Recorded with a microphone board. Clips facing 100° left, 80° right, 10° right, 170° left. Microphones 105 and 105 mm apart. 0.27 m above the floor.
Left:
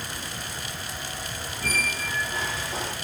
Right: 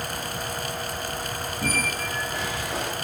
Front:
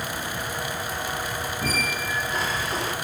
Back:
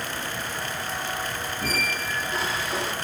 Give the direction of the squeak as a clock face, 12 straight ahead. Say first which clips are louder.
Right 2 dB, even; 3 o'clock.